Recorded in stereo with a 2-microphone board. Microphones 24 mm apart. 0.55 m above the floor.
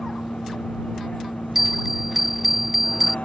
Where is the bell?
10° right (ahead or behind).